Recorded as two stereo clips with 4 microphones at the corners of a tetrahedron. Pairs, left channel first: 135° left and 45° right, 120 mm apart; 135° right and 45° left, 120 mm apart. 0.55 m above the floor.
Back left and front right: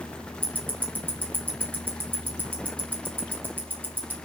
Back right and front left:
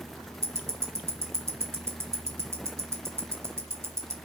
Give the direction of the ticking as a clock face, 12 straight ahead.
12 o'clock.